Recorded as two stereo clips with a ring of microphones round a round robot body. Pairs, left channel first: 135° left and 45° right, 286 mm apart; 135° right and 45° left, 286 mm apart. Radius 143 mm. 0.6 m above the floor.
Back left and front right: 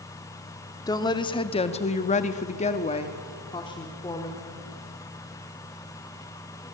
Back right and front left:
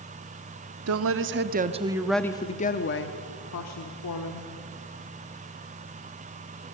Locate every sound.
0.9 s a woman speaking: 60° left, 1.4 m; by 4.5 s 150° right, 2.5 m